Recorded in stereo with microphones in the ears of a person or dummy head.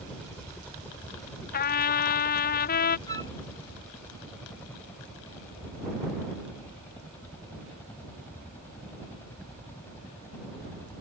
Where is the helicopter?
5° left (ahead or behind); by 11.0 s 10° left (ahead or behind).